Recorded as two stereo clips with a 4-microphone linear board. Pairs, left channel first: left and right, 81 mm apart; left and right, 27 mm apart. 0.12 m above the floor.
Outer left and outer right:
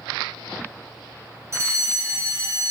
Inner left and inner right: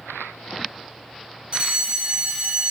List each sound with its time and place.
1.5 s a fire alarm: 35° right (ahead or behind), 3.5 m